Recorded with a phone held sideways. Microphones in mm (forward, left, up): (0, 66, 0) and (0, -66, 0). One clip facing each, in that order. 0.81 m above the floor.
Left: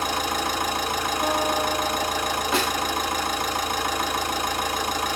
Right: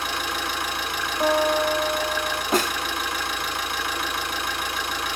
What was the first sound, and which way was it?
An engine running, 40° left (ahead or behind).